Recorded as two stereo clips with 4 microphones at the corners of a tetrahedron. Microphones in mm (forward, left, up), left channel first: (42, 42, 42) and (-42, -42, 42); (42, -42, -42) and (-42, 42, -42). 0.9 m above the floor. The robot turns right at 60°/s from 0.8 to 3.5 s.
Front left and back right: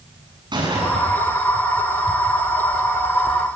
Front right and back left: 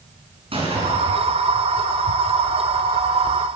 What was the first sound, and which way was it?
A gunshot, 175° left.